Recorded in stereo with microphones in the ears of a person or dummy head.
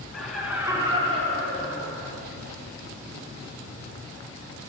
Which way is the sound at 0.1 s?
5° right (ahead or behind).